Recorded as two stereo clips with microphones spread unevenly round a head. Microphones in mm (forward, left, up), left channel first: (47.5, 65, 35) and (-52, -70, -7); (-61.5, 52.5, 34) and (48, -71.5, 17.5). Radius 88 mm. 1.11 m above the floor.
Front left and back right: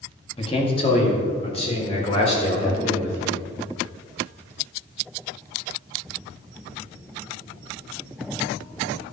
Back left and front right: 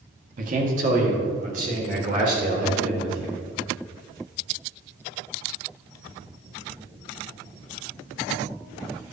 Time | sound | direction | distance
0.4 | a man speaking | 5° right | 1.5 m